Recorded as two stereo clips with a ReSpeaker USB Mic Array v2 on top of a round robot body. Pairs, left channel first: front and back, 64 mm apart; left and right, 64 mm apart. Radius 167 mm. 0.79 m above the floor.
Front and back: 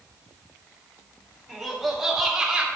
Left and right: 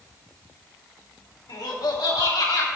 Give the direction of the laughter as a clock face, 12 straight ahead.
9 o'clock.